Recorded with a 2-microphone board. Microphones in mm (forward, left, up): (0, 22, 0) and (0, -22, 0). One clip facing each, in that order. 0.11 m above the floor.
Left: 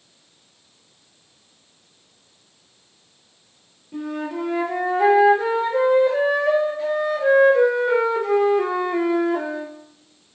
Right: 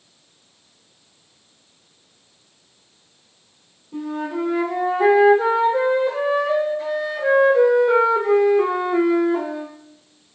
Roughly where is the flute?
Left.